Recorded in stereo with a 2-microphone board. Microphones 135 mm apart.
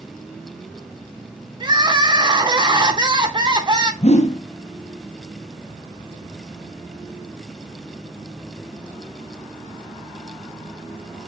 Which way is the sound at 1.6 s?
35° right (ahead or behind).